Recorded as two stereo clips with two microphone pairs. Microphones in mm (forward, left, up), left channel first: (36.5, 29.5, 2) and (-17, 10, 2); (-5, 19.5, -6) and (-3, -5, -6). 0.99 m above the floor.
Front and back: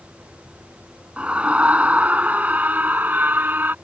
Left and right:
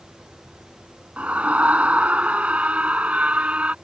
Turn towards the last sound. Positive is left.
turn(degrees=-105)